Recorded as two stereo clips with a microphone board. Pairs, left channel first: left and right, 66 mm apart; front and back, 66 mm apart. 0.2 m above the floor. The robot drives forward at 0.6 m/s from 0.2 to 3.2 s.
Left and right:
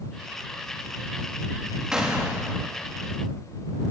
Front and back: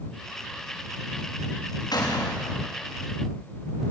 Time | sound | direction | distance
1.9 | a gunshot | 10° right | 7 m